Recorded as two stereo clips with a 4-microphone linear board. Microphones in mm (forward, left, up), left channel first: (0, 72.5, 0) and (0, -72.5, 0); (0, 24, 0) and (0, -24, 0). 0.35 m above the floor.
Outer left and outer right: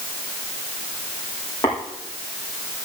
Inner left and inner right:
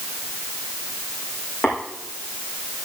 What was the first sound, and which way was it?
Tapping, 25° left (ahead or behind).